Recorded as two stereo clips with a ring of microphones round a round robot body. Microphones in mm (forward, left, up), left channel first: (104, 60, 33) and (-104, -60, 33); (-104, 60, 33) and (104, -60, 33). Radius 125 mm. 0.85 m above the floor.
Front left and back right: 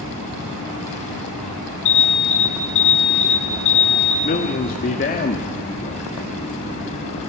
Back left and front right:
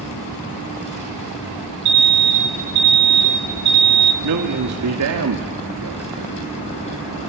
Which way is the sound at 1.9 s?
5° left.